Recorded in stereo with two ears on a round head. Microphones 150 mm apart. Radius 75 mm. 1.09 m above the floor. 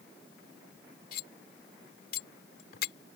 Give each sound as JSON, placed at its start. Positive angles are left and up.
{"t": 1.1, "sound": "cutlery clinking", "side_deg": 60}